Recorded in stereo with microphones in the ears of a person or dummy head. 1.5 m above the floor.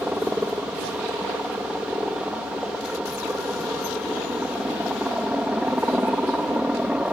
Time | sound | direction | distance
0.0 | a helicopter | centre (ahead or behind) | ?